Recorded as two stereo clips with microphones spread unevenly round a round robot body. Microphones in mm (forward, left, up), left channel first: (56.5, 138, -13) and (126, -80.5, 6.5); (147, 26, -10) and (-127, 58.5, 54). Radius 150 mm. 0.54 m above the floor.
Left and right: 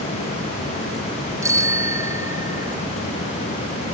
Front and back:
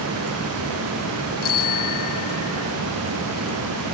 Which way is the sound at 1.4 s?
5° left.